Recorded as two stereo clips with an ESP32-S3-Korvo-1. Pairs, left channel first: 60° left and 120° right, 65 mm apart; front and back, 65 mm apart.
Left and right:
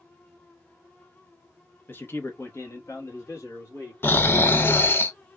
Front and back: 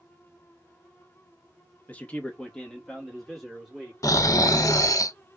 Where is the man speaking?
40° left, 0.8 m; by 3.9 s 95° left, 1.9 m.